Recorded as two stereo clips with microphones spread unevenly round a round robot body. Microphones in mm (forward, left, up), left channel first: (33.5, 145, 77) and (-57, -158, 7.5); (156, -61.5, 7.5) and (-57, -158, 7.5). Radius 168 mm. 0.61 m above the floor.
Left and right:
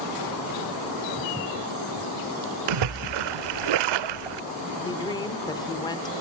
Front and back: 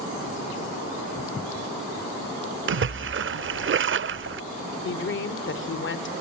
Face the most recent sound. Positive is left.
turn(degrees=-10)